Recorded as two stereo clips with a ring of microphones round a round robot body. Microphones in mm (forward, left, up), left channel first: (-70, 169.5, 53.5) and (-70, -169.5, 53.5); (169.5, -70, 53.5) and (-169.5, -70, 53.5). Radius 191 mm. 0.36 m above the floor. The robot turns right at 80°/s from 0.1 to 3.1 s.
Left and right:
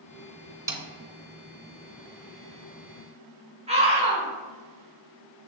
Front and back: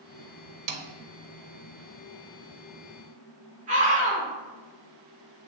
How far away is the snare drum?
About 0.6 m.